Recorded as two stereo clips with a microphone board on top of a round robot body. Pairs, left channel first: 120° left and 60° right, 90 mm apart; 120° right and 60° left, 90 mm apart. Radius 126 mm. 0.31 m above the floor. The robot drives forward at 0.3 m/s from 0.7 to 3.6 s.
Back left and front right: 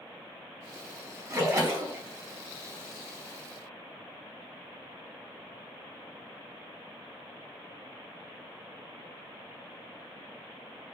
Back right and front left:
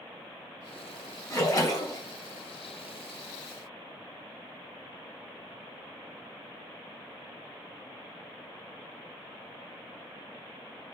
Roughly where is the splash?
Right.